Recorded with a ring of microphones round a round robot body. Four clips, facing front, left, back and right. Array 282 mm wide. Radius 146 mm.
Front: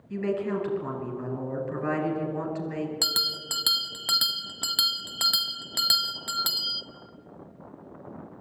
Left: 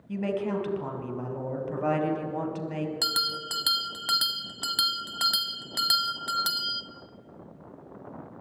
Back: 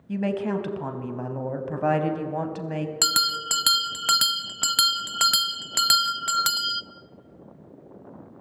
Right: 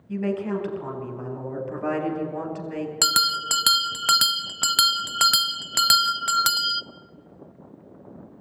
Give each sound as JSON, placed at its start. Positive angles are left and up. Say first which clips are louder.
{"t": 0.1, "sound": "a woman speaking", "louder": "right 3 dB, back 2 dB", "azimuth_deg": 180, "distance_m": 4.0}
{"t": 3.0, "sound": "a bell", "louder": "right 7 dB, back 8 dB", "azimuth_deg": -115, "distance_m": 0.5}